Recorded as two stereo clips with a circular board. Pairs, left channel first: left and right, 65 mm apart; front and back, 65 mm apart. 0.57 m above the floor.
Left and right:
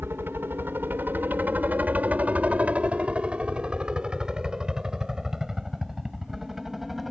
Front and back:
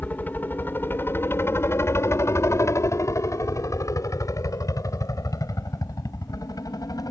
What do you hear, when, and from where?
0.0 s a helicopter: 55° right; by 7.1 s 5° right